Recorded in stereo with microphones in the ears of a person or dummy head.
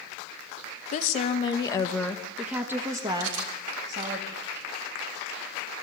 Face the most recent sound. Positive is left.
turn(degrees=-70)  # may be behind; listen again after turning